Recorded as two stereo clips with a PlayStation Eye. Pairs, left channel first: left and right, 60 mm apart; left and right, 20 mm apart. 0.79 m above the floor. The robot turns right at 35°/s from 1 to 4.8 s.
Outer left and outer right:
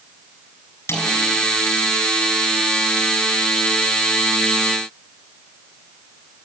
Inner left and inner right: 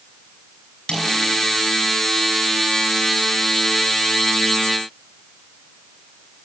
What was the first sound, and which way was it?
A snare drum, 45° left (ahead or behind).